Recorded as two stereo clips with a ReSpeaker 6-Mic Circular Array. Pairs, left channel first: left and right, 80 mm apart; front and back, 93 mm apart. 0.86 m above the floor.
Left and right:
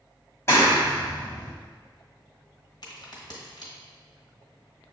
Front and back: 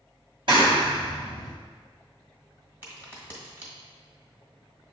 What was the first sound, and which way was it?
A clap, 150° left.